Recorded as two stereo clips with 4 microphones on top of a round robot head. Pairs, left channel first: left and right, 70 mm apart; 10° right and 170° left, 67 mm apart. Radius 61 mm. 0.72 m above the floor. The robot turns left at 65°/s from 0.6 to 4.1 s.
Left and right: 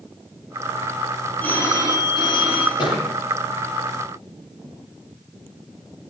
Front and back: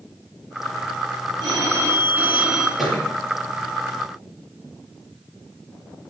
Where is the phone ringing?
160° left, 5.5 m; by 2.7 s 75° left, 5.5 m.